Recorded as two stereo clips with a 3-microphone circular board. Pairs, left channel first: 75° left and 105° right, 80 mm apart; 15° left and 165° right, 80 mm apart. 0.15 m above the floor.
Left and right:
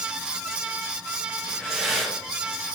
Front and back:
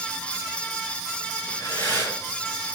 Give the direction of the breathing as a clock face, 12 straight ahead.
12 o'clock.